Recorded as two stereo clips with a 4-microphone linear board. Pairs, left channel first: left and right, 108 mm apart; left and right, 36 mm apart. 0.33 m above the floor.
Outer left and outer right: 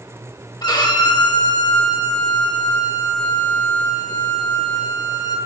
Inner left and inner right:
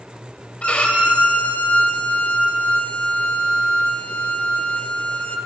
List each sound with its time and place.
0.6 s a violin: 40° left (ahead or behind), 1.3 m